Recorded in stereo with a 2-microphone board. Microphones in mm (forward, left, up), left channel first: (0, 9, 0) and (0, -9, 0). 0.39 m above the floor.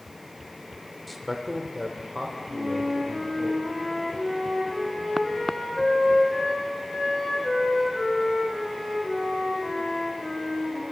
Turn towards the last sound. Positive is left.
turn(degrees=55)  # may be behind; listen again after turning